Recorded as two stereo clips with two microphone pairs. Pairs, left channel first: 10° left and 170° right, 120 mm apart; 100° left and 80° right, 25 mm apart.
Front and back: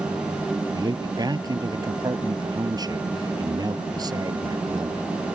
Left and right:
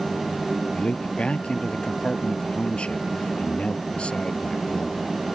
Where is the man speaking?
135° left.